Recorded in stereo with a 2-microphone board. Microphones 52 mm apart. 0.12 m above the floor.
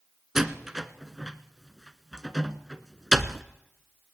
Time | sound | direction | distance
0.3 | a door slam | 10° right (ahead or behind) | 1.1 m